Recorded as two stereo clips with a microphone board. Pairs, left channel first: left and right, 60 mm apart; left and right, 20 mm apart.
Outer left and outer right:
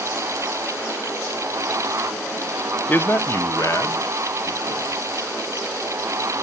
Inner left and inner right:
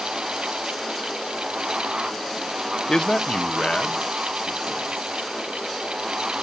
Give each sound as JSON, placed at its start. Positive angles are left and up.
{"t": 2.9, "sound": "a man speaking", "side_deg": 25, "distance_m": 0.5}